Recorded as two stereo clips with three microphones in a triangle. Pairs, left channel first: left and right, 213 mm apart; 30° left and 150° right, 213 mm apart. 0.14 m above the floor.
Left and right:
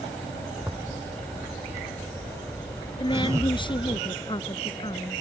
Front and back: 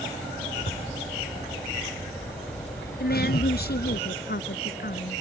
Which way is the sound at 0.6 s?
15° right.